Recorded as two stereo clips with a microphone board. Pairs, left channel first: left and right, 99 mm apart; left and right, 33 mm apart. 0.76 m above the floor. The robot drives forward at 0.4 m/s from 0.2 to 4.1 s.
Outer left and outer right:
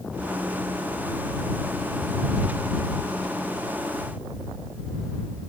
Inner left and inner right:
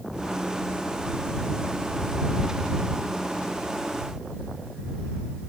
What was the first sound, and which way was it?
Only background noise.